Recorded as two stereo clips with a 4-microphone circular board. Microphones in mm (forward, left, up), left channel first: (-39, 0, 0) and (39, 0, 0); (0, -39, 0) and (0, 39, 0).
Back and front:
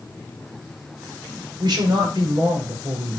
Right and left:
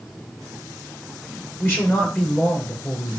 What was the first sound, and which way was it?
A man speaking, 25° right.